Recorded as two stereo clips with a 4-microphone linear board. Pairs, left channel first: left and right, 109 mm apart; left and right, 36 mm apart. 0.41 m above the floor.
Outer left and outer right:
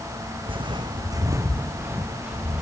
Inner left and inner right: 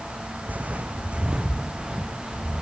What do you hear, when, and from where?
0.5 s footsteps: 55° right (ahead or behind), 1.4 m; by 2.6 s 10° right (ahead or behind), 2.5 m